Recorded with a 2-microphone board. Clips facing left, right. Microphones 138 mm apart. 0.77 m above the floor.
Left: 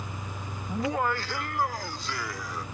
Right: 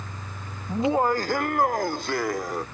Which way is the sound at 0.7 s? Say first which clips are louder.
Right 6 dB; 15° right (ahead or behind).